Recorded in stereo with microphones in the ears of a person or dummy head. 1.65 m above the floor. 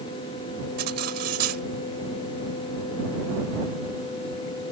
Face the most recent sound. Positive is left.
turn(degrees=-55)  # may be behind; listen again after turning